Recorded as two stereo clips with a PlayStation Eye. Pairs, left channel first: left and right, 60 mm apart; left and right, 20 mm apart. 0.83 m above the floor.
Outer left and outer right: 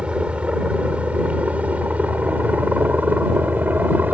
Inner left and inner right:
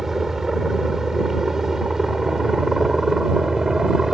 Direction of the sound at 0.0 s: 15° right (ahead or behind).